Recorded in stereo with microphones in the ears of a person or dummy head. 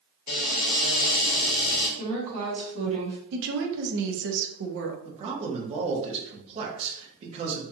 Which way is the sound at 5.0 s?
35° right (ahead or behind).